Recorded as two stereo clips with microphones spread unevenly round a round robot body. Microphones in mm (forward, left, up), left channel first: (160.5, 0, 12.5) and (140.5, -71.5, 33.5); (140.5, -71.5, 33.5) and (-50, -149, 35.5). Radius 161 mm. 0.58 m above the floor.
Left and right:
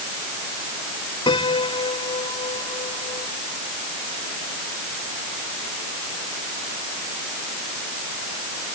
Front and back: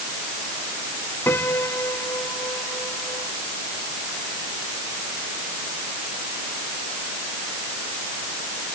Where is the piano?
105° left.